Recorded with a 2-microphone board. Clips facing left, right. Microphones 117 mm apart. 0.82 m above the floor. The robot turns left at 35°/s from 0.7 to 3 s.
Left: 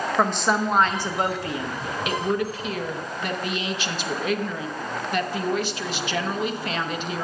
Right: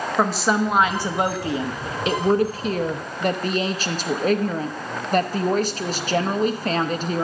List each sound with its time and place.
0.2 s a woman speaking: 5° right, 0.8 m; by 7.2 s 85° right, 0.8 m